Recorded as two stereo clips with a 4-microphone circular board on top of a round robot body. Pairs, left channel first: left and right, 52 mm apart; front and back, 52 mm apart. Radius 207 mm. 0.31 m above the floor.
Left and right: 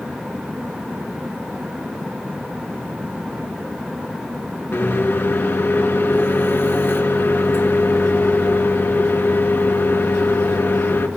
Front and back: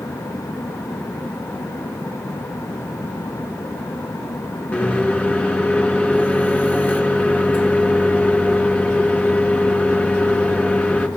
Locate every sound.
4.7 s a microwave: 50° left, 1.7 m